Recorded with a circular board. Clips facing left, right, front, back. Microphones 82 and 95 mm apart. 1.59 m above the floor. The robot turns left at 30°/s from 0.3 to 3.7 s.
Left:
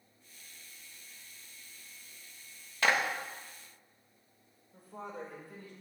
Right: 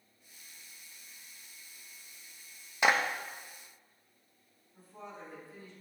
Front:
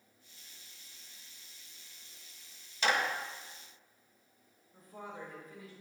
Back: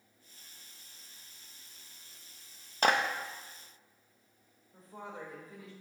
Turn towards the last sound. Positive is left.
turn(degrees=120)